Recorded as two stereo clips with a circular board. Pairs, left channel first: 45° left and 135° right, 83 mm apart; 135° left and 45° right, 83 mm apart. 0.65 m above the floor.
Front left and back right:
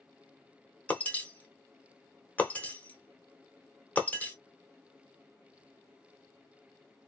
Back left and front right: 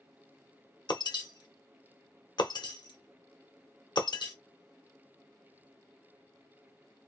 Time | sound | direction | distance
0.9 | breaking glass | 115° left | 0.8 m